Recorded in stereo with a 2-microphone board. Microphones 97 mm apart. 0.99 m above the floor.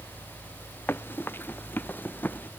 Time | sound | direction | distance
0.9 | running footsteps | 20° left (ahead or behind) | ?